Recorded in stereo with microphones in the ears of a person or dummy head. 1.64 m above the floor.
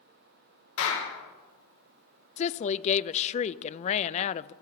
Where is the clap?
85° left, 6 m.